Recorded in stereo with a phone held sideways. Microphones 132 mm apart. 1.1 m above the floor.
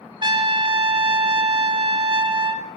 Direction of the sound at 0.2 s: 40° right (ahead or behind).